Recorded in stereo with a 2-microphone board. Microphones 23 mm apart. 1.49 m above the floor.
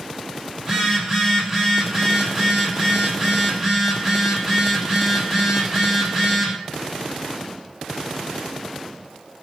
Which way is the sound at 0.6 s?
25° right (ahead or behind).